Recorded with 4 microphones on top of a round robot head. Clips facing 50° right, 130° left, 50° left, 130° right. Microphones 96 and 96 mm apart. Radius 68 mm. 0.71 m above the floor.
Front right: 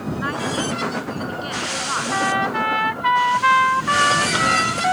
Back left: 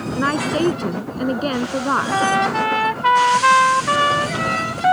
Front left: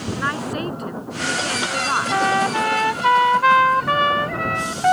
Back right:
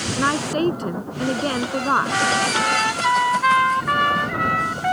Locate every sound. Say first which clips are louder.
0.2 s a woman speaking: back left 7 dB, back right 6 dB; 170° left
2.1 s a trumpet: even, front left 2 dB; 85° left